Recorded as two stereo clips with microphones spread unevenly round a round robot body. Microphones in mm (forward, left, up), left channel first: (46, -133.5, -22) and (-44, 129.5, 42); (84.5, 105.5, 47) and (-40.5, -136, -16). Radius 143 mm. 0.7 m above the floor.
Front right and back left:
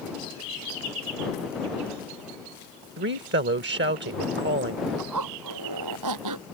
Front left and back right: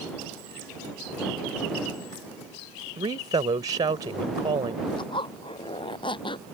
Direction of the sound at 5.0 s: 135° left.